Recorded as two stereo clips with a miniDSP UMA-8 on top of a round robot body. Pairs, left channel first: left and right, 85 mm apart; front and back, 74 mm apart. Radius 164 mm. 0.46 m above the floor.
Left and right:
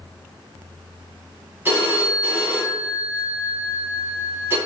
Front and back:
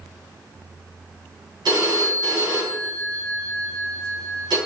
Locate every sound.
1.6 s a phone ringing: 155° right, 3 m